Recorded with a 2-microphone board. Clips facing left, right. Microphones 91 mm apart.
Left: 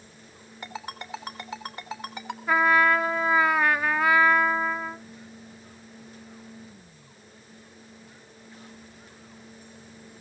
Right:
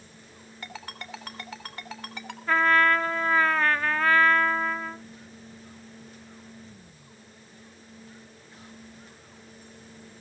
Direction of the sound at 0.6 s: 15° left (ahead or behind).